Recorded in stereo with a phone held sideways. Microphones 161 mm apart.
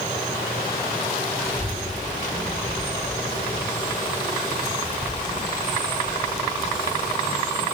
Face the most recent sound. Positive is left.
turn(degrees=65)  # may be behind; listen again after turning